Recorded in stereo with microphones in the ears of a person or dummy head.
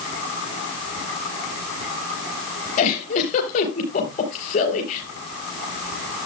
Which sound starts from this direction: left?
A giggle, at 2.8 s.